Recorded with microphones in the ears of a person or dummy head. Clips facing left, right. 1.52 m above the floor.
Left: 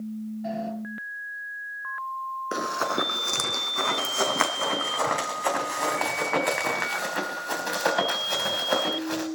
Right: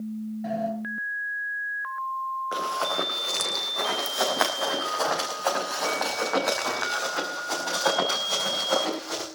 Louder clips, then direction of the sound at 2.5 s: Left 2 dB; 45° left (ahead or behind).